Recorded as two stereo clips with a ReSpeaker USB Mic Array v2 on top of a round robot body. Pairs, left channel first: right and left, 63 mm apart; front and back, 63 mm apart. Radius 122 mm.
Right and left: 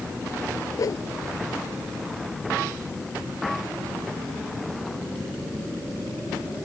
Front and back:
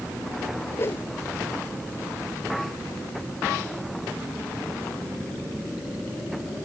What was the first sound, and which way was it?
A whoosh, 55° right.